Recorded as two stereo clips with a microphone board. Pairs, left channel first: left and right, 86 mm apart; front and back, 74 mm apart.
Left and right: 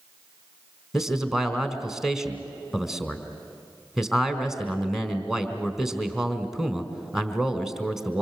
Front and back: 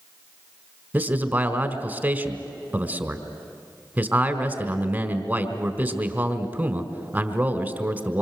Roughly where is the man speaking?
Behind.